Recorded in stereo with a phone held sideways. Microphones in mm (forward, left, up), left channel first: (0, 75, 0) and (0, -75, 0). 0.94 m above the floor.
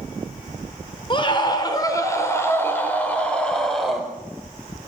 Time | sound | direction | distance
1.1 | a scream | 35° left (ahead or behind) | 3.5 m